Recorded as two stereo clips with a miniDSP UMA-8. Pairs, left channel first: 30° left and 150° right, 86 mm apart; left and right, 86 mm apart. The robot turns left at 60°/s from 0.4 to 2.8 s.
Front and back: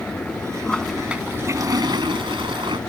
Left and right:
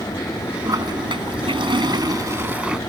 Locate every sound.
0.6 s a toilet flushing: 45° right; by 2.8 s 175° right